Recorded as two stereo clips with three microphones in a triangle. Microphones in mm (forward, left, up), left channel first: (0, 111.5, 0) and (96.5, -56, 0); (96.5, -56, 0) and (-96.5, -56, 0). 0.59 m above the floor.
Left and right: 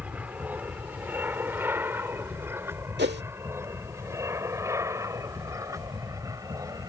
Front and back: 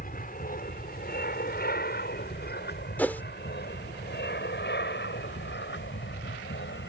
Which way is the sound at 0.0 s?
20° left.